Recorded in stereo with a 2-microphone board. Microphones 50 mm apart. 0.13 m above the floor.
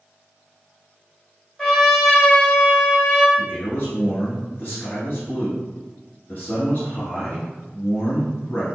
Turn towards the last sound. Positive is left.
turn(degrees=45)  # may be behind; listen again after turning